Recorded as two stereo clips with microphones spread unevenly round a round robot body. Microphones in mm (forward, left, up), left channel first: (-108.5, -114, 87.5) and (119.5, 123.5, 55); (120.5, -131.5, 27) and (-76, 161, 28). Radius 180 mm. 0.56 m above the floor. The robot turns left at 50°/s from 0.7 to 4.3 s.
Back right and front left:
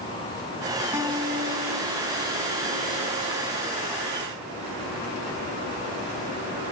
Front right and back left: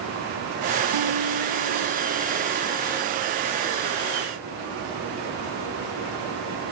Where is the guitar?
130° left, 3 m; by 3.1 s 25° left, 3 m.